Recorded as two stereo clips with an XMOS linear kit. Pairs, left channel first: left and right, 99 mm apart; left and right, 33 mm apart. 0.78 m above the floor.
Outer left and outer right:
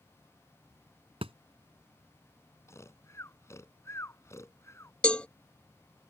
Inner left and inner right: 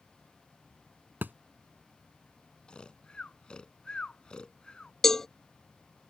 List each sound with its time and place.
1.2 s a thud: 70° right (ahead or behind)
2.7 s snoring: 30° left (ahead or behind)
5.0 s a cowbell: 10° left (ahead or behind)